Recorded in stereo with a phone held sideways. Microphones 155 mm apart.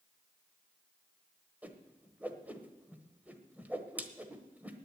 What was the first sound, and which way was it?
A whoosh, 10° right (ahead or behind).